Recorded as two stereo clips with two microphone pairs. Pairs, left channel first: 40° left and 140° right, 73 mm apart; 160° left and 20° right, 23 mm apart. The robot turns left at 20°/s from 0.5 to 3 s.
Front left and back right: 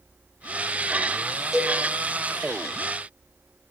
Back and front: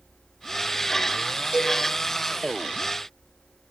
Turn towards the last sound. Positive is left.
turn(degrees=-80)